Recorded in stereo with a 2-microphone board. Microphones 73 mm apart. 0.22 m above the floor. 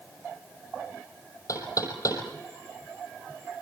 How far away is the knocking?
About 5.5 m.